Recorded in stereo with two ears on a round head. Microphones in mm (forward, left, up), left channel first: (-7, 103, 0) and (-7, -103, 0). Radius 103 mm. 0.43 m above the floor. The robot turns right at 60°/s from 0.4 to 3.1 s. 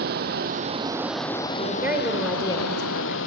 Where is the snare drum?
I don't hear a snare drum.